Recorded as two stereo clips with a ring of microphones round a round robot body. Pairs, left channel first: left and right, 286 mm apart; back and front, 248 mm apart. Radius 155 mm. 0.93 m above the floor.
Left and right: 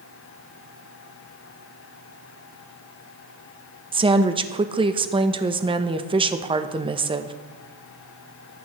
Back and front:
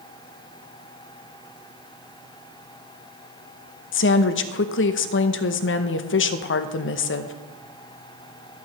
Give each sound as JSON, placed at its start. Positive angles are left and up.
{"t": 3.9, "sound": "a woman speaking", "azimuth_deg": -160, "distance_m": 0.8}